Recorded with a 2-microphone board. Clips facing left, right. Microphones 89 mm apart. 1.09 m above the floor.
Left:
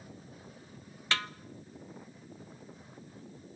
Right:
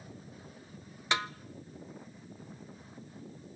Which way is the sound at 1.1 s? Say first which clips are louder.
Right 2 dB; 20° right (ahead or behind).